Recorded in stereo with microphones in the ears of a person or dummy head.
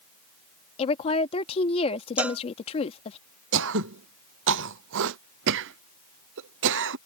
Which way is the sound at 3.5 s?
60° right (ahead or behind).